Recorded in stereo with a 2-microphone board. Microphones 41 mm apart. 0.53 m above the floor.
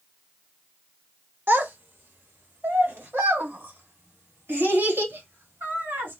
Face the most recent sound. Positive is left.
turn(degrees=-85)